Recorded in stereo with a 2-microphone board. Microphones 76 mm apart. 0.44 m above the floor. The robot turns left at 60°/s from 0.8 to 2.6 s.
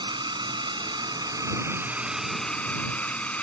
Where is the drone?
90° right; by 3.4 s 160° left.